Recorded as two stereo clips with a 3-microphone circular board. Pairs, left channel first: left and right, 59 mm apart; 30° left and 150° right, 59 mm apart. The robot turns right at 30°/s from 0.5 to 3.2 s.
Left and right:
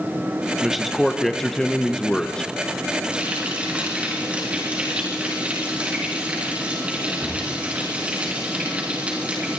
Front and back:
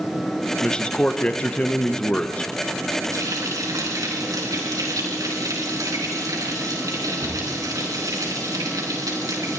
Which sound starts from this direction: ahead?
A man speaking, at 0.6 s.